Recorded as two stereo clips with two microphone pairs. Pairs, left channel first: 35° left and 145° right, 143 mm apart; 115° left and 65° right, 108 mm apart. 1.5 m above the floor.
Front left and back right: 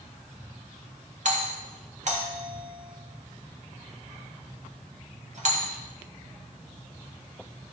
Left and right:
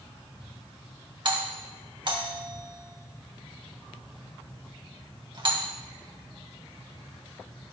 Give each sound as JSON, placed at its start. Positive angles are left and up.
{"t": 1.2, "sound": "a doorbell", "azimuth_deg": -110, "distance_m": 1.6}